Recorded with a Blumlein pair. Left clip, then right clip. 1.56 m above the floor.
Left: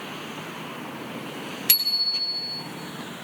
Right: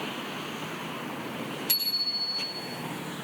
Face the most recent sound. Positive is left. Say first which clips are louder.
# left 6 dB
turn(degrees=30)